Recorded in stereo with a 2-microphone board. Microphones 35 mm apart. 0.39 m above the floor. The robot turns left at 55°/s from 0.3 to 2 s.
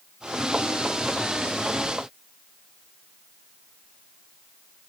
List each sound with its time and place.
Only background noise.